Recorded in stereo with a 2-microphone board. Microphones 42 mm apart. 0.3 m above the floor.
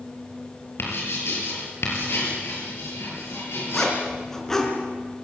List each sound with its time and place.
0.8 s writing: 70° left (ahead or behind), 7.5 m
3.7 s a zipper: 10° left (ahead or behind), 3.5 m